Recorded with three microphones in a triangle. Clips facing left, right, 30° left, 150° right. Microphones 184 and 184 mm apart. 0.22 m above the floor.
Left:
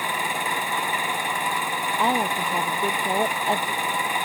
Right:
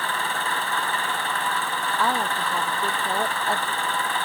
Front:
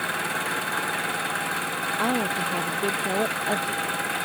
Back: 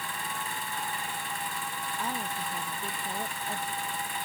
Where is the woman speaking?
20° left.